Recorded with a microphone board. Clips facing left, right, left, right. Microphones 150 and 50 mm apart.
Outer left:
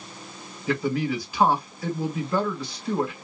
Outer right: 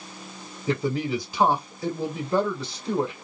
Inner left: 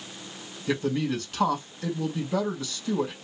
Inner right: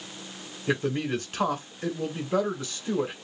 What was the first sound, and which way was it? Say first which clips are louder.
A man speaking: even, even; 25° right (ahead or behind).